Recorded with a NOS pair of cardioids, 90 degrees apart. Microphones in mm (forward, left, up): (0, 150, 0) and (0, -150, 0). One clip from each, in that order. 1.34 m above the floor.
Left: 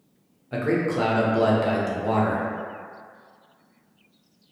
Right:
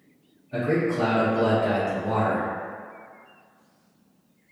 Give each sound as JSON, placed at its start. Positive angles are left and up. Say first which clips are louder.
{"t": 0.5, "sound": "a man speaking", "louder": "even", "azimuth_deg": 65, "distance_m": 0.9}